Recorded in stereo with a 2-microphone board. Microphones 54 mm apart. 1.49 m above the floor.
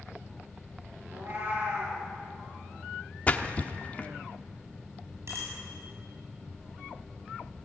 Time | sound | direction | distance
1.1 | a cat meowing | 40° right (ahead or behind) | 9.5 m
3.3 | a splash | 30° left (ahead or behind) | 1.1 m
5.3 | a bicycle bell | 55° right (ahead or behind) | 8.5 m